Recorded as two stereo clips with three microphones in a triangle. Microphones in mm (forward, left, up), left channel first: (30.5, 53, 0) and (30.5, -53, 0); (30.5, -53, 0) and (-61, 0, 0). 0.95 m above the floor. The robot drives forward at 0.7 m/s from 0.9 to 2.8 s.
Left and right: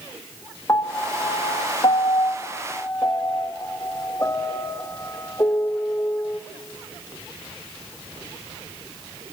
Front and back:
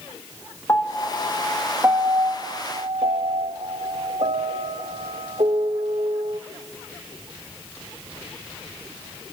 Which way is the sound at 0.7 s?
30° left.